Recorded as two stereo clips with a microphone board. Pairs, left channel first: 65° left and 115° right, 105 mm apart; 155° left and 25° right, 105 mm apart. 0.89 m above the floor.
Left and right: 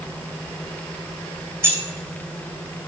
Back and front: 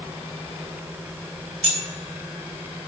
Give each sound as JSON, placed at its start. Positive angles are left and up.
{"t": 1.6, "sound": "keys jangling", "azimuth_deg": -45, "distance_m": 2.0}